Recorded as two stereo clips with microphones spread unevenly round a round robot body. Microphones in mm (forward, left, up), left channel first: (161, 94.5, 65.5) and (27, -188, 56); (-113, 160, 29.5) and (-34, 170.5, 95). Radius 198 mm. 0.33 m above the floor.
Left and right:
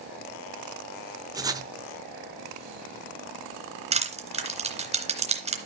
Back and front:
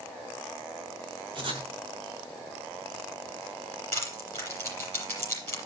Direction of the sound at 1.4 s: 50° right.